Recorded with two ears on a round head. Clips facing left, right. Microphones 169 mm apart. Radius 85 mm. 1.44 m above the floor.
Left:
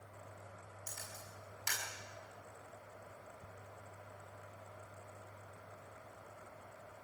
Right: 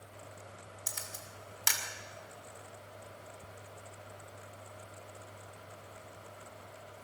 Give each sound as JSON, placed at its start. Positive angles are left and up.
{"t": 0.9, "sound": "a camera shutter", "side_deg": -70, "distance_m": 6.0}